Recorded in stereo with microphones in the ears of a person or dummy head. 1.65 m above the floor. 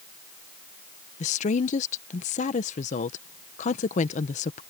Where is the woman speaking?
45° left (ahead or behind).